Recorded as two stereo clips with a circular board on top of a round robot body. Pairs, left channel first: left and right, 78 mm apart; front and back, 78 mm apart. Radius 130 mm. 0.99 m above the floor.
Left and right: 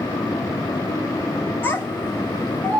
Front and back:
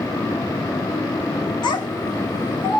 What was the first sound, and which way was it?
A child speaking, 30° left.